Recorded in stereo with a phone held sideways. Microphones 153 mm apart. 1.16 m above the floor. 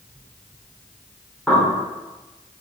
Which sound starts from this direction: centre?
A bird, at 1.5 s.